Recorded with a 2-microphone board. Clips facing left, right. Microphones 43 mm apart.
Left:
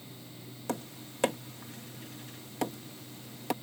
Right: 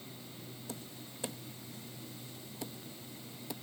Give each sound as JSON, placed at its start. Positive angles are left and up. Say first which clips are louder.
{"t": 0.7, "sound": "tapping", "louder": "left 13 dB", "side_deg": 80}